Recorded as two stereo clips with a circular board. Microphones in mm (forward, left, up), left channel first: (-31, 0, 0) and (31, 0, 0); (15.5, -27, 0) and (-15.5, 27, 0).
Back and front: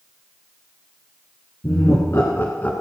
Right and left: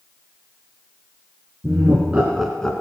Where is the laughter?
165° left, 2 m; by 2.7 s 130° right, 1.6 m.